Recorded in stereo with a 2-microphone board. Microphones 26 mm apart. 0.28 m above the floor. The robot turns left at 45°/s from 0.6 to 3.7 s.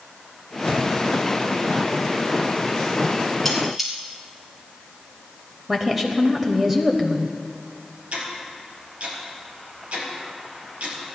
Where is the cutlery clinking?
5° left (ahead or behind), 3.5 m; by 3.9 s 5° right (ahead or behind), 3.5 m.